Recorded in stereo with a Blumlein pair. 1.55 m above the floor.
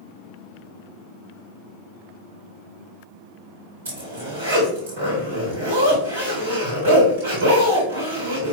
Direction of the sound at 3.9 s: 60° right.